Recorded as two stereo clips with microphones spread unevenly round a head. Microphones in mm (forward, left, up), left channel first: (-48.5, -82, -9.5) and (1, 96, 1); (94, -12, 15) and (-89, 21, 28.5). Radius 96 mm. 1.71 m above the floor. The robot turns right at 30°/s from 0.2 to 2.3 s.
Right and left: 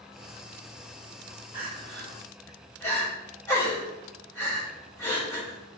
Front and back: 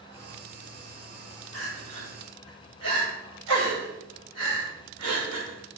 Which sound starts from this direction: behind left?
Crying, at 1.5 s.